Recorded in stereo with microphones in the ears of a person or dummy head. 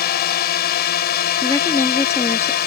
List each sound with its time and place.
0.0 s a drone: 50° left (ahead or behind)
1.4 s a woman speaking: 15° left (ahead or behind)